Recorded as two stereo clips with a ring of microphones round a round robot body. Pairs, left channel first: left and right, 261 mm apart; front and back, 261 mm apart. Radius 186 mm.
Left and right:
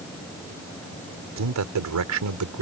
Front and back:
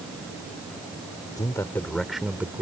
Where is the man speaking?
80° right; by 2.6 s 95° right.